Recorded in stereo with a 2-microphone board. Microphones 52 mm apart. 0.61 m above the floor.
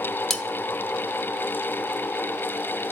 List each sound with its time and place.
0.3 s cutlery clinking: 5° left (ahead or behind), 0.6 m